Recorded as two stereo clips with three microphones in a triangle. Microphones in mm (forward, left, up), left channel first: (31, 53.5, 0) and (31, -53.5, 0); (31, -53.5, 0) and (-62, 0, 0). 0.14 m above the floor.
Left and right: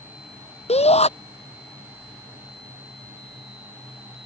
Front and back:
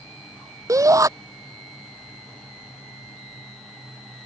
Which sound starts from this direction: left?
A shout, at 0.7 s.